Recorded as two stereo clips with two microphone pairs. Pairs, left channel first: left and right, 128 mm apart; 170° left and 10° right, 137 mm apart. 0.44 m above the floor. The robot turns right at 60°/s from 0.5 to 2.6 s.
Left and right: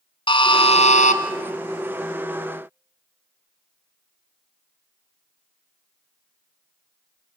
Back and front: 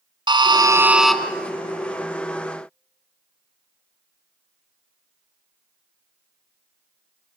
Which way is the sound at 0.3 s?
45° left.